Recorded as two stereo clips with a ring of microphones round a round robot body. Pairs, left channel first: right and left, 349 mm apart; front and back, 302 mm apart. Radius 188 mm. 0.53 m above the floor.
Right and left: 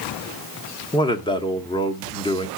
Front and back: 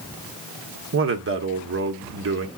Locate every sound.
0.9 s a man speaking: 160° right, 1.3 m